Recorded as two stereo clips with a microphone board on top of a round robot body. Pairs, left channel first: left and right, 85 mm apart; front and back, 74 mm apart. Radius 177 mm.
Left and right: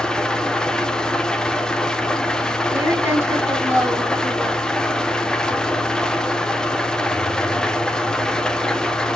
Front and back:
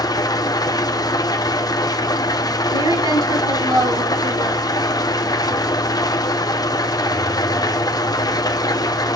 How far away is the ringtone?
No ringtone in this recording.